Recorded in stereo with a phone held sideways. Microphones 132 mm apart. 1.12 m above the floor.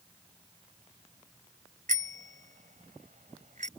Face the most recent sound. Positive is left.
turn(degrees=-70)  # may be behind; listen again after turning